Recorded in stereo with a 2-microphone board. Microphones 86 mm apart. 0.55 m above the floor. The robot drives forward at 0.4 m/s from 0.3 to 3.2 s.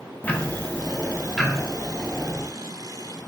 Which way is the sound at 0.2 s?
15° left (ahead or behind).